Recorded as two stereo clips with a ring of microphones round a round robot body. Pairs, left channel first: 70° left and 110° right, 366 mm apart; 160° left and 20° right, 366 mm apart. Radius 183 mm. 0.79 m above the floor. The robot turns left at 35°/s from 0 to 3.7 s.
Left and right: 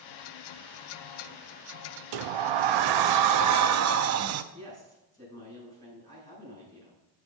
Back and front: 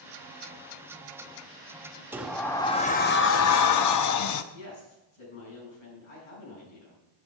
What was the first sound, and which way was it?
A sliding door, 105° right.